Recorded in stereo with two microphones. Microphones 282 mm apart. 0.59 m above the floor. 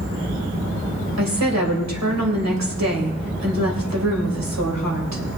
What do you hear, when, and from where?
1.2 s a woman speaking: 65° right (ahead or behind), 3 m